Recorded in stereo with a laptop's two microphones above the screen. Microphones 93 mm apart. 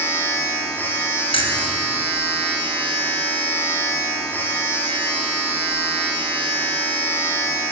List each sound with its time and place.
0.0 s a machine running: 20° left (ahead or behind), 1.2 m
1.3 s keys jangling: 65° left (ahead or behind), 0.9 m